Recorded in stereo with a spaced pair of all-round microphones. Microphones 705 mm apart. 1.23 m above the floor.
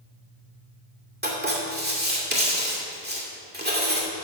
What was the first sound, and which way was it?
Writing, 15° right (ahead or behind).